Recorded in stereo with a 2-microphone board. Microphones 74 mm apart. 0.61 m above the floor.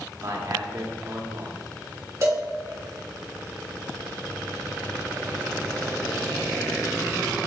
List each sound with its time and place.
0.2 s a man speaking: 50° right (ahead or behind), 1.5 m
2.2 s a cowbell: 40° right (ahead or behind), 1.4 m